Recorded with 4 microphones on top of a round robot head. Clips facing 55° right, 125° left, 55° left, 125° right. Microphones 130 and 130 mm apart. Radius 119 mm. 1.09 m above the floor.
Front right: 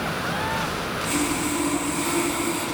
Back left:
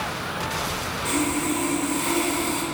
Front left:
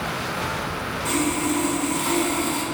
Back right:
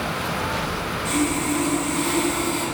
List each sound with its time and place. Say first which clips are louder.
1.1 s sawing: back left 1 dB, even; 95° left, 3 m